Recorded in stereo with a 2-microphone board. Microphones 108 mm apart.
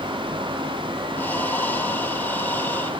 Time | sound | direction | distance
1.1 | breathing | 15° left (ahead or behind) | 1.9 m